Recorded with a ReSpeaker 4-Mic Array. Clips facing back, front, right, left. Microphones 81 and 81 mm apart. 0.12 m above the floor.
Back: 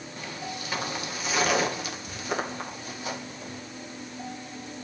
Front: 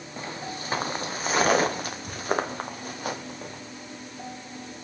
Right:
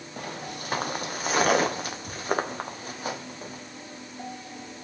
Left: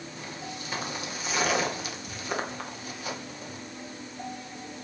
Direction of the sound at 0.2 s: 60° right.